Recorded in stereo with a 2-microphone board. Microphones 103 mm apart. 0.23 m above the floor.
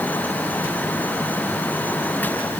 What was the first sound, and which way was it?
Only background noise.